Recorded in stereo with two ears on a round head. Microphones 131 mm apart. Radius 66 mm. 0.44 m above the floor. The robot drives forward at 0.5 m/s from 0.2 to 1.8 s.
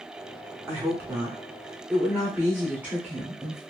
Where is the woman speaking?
20° right (ahead or behind), 0.7 m; by 3.6 s 15° right (ahead or behind), 1.0 m.